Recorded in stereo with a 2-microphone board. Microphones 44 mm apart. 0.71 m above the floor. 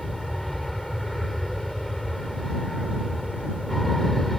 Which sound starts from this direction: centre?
An aircraft, at 0.0 s.